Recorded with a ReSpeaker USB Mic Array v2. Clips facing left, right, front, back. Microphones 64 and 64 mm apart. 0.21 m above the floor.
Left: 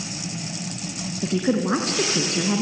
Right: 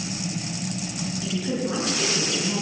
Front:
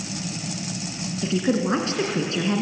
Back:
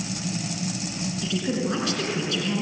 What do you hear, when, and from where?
1.2 s a woman speaking: 55° left, 2.5 m